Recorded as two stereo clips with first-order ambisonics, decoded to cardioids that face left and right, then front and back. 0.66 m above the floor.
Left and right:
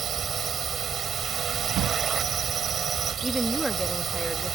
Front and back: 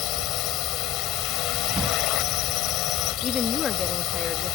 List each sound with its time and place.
0.0 s a drone: 30° right
1.8 s a drawer: 110° right
3.2 s a woman speaking: 5° right